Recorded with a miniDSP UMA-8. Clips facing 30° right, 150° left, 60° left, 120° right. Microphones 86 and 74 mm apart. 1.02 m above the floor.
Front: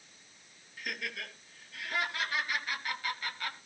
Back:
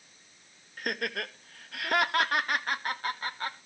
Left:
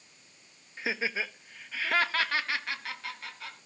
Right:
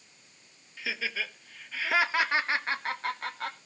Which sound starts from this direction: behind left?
Laughter, at 0.8 s.